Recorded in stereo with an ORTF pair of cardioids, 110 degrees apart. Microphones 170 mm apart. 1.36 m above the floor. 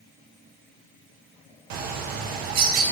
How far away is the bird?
About 0.5 m.